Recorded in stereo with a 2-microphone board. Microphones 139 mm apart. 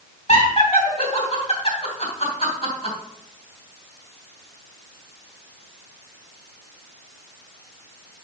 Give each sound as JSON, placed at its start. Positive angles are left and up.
{"t": 0.3, "sound": "laughter", "side_deg": 45, "distance_m": 2.5}